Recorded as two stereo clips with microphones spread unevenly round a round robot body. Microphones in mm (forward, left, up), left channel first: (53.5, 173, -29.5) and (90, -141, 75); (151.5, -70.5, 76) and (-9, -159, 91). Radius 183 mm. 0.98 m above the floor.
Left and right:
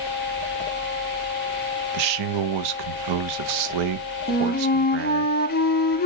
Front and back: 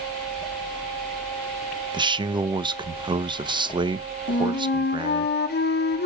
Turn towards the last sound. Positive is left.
turn(degrees=45)